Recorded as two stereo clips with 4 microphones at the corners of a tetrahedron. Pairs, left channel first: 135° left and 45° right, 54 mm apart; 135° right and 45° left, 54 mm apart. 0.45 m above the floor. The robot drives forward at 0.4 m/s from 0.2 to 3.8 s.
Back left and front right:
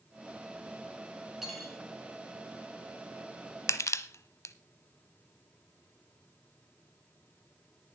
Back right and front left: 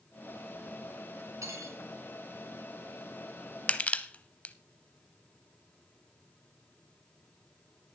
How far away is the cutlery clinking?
About 3 m.